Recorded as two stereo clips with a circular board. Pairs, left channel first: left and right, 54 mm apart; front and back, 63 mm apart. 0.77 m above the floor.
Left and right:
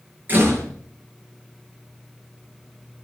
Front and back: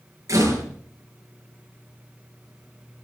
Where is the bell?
No bell in this recording.